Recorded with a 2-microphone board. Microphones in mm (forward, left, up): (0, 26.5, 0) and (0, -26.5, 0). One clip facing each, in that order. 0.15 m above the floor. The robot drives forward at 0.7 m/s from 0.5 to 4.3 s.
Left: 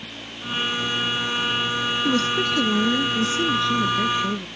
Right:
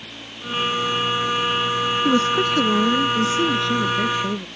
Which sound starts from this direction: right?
A woman speaking, at 2.0 s.